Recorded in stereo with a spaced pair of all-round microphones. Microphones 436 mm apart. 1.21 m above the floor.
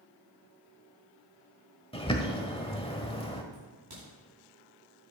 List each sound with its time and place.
1.9 s a bird: 15° left (ahead or behind), 1.1 m
3.5 s a crack: 55° right (ahead or behind), 4 m